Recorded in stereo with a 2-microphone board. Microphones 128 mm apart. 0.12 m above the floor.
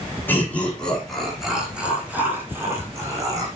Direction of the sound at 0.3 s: 15° left (ahead or behind).